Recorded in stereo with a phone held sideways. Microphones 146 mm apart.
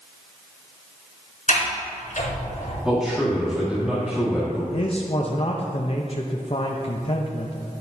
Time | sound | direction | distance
1.5 | a sliding door | 65° left (ahead or behind) | 3.5 m
2.9 | a man speaking | 5° right (ahead or behind) | 1.8 m
4.7 | a man speaking | 45° left (ahead or behind) | 0.8 m